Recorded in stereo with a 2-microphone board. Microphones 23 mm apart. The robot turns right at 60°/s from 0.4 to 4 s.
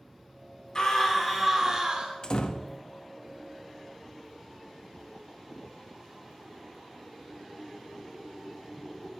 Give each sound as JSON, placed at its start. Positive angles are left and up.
{"t": 0.8, "sound": "a scream", "azimuth_deg": 145, "distance_m": 2.5}
{"t": 2.2, "sound": "a door slam", "side_deg": 35, "distance_m": 0.9}